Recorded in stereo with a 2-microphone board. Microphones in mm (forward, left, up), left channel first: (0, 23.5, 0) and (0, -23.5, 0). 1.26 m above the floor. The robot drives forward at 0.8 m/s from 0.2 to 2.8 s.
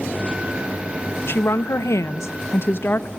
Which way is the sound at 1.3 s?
50° left (ahead or behind).